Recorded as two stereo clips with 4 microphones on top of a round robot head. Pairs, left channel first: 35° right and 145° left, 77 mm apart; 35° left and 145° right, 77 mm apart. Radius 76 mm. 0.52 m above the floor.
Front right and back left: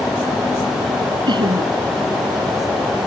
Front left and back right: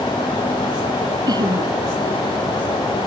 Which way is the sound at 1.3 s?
175° left.